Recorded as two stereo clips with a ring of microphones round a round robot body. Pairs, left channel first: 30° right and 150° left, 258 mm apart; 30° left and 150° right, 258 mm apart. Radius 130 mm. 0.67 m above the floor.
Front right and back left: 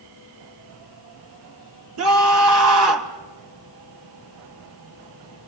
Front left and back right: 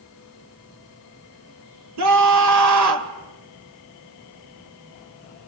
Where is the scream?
175° right, 2.5 m.